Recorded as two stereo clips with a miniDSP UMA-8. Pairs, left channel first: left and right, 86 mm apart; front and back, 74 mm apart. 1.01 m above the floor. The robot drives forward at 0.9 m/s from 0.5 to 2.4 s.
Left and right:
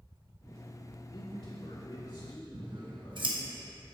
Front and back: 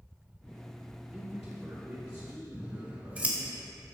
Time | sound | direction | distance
1.1 | a man speaking | 100° left | 1.9 m
2.5 | scissors | 110° right | 1.1 m